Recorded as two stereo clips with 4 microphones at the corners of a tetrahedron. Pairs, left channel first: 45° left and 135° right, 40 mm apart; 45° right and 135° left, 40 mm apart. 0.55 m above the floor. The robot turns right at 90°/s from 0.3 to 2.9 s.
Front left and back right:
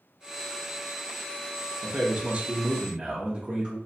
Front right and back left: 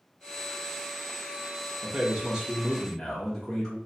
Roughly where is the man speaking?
Behind left.